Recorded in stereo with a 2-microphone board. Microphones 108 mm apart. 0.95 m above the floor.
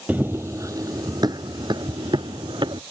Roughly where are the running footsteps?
Centre.